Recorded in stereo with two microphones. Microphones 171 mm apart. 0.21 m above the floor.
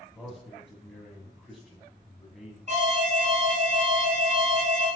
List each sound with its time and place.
0.1 s a man speaking: centre (ahead or behind), 1.2 m
2.7 s an alarm: 45° right (ahead or behind), 1.4 m